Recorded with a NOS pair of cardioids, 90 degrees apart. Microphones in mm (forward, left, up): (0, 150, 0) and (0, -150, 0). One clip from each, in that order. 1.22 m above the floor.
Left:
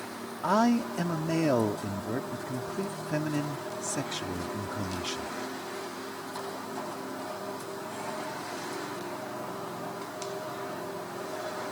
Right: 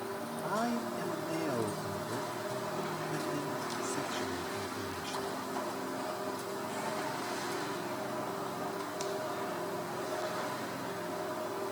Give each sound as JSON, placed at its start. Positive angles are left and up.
{"t": 0.4, "sound": "a man speaking", "azimuth_deg": 60}